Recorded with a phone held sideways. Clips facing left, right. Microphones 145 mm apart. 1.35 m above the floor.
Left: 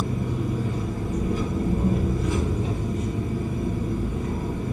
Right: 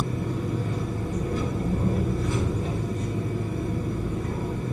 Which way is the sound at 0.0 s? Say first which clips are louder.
Left 1 dB; 20° left (ahead or behind).